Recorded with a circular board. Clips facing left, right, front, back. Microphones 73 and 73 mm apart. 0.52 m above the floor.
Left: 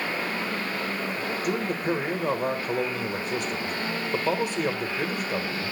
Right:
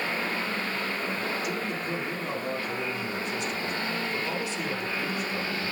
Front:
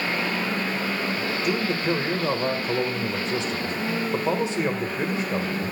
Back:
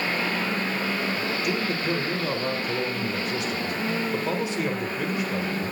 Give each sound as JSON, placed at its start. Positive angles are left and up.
{"t": 1.4, "sound": "a man speaking", "azimuth_deg": 60, "distance_m": 1.4}